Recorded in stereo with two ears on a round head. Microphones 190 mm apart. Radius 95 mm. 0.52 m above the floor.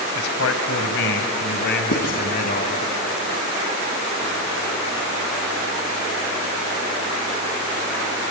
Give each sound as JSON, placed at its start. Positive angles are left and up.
{"t": 0.1, "sound": "a man speaking", "side_deg": 75, "distance_m": 2.5}
{"t": 1.9, "sound": "writing", "side_deg": 80, "distance_m": 3.5}